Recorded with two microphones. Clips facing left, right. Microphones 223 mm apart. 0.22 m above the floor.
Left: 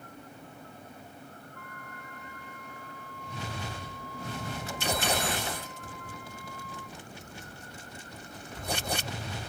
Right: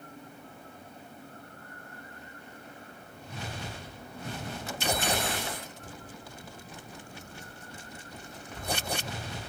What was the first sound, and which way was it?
A flute, 90° left.